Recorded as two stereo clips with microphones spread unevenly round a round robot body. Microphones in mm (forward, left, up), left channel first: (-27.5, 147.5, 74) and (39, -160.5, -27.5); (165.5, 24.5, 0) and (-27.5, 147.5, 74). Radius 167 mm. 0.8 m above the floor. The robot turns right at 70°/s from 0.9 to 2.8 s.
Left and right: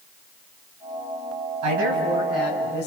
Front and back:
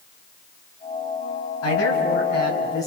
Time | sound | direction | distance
1.6 | a man speaking | 40° right | 5.5 m